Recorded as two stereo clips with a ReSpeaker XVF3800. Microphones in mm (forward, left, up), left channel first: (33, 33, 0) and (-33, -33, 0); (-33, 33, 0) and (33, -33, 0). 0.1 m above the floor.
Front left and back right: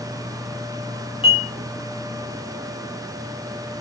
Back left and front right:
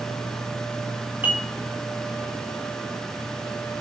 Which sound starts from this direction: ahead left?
Dishes clattering, at 1.2 s.